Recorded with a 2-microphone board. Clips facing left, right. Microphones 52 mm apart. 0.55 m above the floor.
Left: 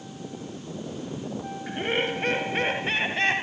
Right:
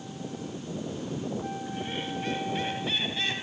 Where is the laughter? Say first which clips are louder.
Left 7 dB; 70° left (ahead or behind); by 3.4 s 45° left (ahead or behind).